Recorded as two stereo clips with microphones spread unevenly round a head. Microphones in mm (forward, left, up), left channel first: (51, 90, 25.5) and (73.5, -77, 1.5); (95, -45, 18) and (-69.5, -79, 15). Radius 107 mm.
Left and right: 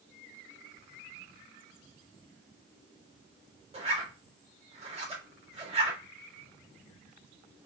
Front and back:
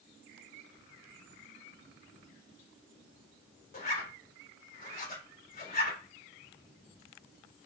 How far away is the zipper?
About 3 m.